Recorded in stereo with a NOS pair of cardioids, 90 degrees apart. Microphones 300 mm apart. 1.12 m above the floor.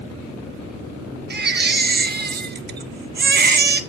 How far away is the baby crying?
About 1.3 m.